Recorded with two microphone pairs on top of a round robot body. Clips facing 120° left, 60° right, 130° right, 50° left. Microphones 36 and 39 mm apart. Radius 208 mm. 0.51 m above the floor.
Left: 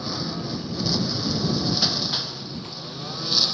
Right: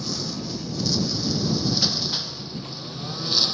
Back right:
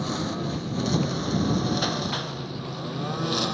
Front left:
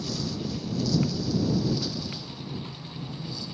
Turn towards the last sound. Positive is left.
turn(degrees=-150)